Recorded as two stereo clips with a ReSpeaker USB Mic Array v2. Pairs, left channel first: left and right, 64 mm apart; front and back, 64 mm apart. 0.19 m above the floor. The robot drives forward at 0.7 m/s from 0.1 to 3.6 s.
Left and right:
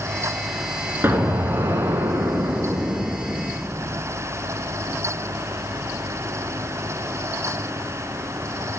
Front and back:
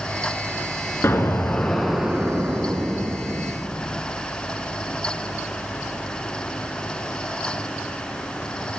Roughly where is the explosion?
Ahead right.